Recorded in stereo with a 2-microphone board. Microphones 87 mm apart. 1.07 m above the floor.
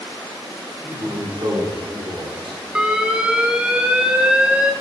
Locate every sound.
0.8 s a man speaking: 30° right (ahead or behind), 4 m; by 2.6 s 70° right (ahead or behind), 3.5 m
2.8 s an alarm: 10° right (ahead or behind), 1.4 m